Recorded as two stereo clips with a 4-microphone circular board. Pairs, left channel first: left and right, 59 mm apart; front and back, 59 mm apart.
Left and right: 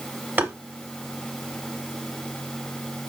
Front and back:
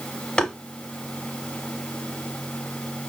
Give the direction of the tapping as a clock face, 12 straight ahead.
2 o'clock.